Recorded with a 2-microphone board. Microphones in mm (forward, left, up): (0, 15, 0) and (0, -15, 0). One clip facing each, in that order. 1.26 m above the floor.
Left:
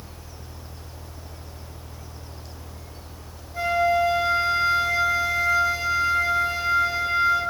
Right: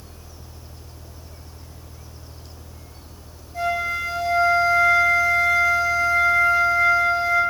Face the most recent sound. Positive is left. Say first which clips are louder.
# left 3 dB
turn(degrees=20)  # may be behind; listen again after turning